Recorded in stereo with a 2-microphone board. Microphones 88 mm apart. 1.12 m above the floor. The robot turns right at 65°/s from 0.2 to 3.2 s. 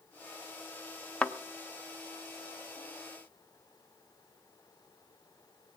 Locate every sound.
1.2 s a thud: 10° left (ahead or behind), 0.7 m; by 1.3 s 5° left (ahead or behind), 0.7 m